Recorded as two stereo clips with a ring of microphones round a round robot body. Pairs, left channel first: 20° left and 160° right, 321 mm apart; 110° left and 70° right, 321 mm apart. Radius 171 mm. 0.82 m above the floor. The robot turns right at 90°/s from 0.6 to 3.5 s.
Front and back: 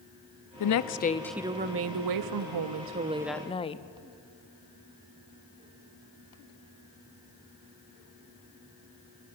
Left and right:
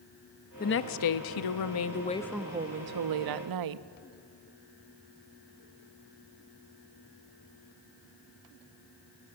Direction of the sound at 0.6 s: 50° left.